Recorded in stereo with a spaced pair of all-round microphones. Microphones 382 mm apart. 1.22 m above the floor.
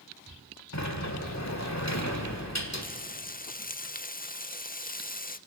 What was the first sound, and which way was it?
A sliding door, 50° left (ahead or behind).